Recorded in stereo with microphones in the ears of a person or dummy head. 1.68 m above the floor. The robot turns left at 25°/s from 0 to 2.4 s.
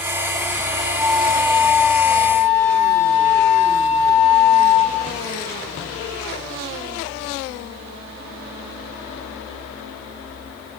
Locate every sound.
1.0 s a flute: 155° right, 4 m; by 5.1 s 170° left, 4 m